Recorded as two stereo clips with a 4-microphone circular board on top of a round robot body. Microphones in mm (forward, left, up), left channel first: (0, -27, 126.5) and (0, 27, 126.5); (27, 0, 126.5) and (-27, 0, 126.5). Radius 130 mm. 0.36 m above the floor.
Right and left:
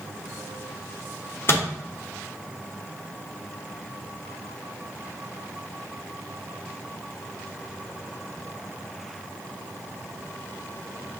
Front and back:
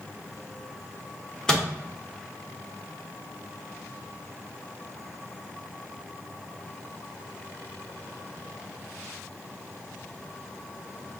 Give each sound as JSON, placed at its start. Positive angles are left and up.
{"t": 1.5, "sound": "a microwave", "azimuth_deg": -75, "distance_m": 1.2}